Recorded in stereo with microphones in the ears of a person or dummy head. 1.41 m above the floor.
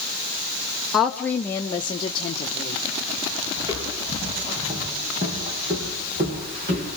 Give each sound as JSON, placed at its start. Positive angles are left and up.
{"t": 0.9, "sound": "a woman speaking", "side_deg": -5, "distance_m": 0.9}
{"t": 3.6, "sound": "footsteps", "side_deg": -20, "distance_m": 7.5}